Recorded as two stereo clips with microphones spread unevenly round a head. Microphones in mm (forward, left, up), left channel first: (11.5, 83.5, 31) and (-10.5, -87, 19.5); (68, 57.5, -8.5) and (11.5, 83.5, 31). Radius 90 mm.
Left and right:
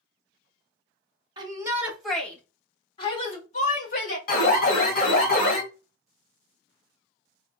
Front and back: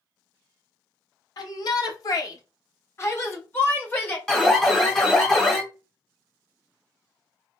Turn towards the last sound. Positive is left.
turn(degrees=45)